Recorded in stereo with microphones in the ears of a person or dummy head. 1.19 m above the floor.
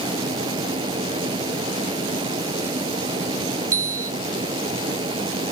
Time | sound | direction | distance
0.0 | a fan | 25° right (ahead or behind) | ?
3.7 | a bicycle bell | 20° right (ahead or behind) | ?